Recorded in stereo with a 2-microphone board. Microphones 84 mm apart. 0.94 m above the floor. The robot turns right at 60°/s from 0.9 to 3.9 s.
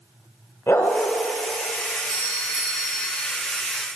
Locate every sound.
0.7 s a dog barking: 35° left (ahead or behind), 1.8 m; by 1.1 s 20° left (ahead or behind), 1.8 m
2.1 s a doorbell: 40° right, 4 m; by 3.1 s 20° left, 4 m